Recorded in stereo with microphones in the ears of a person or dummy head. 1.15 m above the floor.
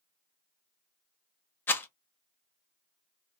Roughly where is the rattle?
Centre.